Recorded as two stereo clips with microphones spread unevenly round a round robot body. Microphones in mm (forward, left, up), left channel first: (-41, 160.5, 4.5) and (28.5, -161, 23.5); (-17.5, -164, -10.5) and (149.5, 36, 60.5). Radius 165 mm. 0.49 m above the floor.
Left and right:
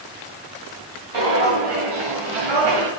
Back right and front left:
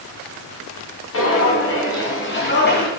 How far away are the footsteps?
About 4 m.